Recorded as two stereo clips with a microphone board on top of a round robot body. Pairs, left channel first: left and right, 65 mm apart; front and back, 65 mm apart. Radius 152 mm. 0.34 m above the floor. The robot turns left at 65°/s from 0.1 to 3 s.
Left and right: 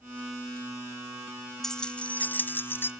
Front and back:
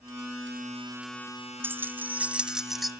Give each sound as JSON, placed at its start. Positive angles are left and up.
{"t": 1.6, "sound": "keys jangling", "azimuth_deg": 170, "distance_m": 0.7}